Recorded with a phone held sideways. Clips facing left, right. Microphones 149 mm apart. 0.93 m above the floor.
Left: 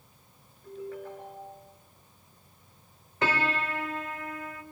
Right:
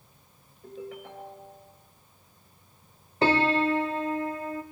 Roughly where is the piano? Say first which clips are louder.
Right 7 dB; right.